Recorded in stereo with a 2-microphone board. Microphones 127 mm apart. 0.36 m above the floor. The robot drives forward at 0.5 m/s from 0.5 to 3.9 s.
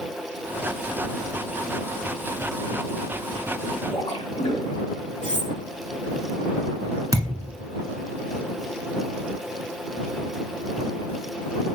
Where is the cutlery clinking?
65° left (ahead or behind), 1.7 m.